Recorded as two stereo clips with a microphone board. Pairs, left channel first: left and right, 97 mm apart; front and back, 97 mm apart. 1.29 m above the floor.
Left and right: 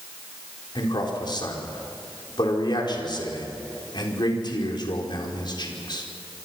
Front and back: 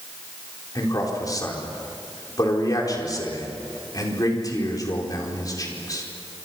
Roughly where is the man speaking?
Ahead left.